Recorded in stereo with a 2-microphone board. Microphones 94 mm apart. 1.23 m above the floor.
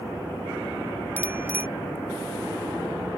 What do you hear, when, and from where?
1.2 s a bicycle bell: 20° right (ahead or behind)